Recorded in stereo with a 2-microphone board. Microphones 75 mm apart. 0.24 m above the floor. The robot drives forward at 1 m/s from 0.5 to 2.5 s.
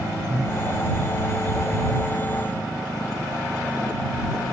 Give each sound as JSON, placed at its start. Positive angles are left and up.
{"t": 0.3, "sound": "breathing", "side_deg": -40}